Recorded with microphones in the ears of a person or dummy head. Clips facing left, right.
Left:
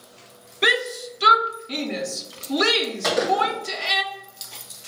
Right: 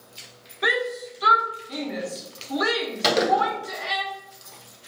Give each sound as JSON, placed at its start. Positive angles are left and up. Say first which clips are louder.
{"t": 0.6, "sound": "a shout", "louder": "left 1 dB", "side_deg": 35, "distance_m": 0.7}
{"t": 3.0, "sound": "a gunshot", "louder": "right 1 dB", "side_deg": -40, "distance_m": 1.2}